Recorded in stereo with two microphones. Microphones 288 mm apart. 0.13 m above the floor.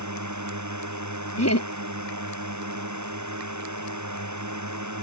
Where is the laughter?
60° left (ahead or behind).